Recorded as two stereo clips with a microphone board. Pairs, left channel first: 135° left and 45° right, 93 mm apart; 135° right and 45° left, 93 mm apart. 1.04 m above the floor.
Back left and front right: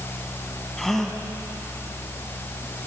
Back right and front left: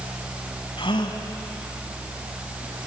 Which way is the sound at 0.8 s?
140° right.